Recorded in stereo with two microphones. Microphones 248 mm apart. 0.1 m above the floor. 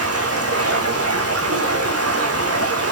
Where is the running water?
70° right (ahead or behind), 2.5 m.